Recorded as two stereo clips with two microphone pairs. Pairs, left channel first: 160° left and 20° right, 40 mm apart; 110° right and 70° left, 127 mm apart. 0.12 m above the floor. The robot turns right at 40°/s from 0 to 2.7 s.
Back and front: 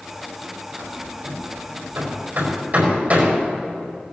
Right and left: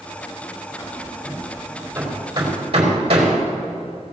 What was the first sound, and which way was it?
Hammering, 50° right.